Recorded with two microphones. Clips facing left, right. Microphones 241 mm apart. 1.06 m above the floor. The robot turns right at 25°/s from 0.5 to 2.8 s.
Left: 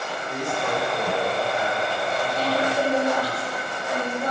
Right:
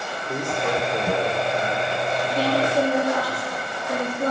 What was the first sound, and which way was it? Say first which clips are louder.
A man speaking: right 2 dB; 105° right.